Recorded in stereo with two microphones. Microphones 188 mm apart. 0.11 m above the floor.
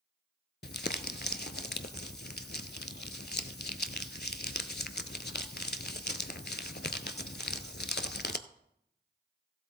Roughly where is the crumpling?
Left.